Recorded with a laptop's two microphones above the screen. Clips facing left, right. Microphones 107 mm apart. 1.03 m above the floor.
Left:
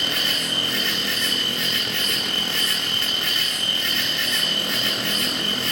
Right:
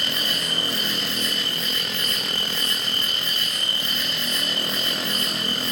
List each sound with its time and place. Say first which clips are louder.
0.0 s an insect: left 1 dB; 60° left (ahead or behind), 5.5 m